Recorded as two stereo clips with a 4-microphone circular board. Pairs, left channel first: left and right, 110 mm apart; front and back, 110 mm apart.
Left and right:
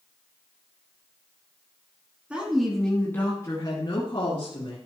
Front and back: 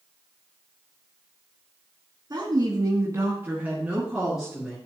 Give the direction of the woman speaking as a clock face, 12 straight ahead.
5 o'clock.